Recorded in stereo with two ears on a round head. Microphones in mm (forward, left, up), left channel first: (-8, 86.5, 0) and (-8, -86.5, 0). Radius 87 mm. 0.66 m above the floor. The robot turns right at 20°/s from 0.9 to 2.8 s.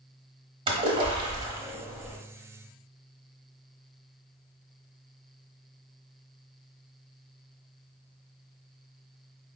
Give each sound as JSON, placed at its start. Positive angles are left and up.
{"t": 0.7, "sound": "a splash", "side_deg": -25, "distance_m": 1.0}